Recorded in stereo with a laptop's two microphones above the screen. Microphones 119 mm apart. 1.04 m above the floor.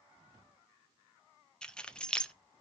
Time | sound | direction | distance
1.6 | keys jangling | 10° left (ahead or behind) | 0.6 m